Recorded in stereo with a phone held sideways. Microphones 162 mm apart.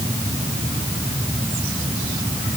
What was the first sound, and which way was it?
Only background noise.